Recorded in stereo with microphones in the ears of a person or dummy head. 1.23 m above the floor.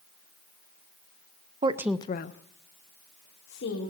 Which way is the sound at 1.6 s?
30° right (ahead or behind).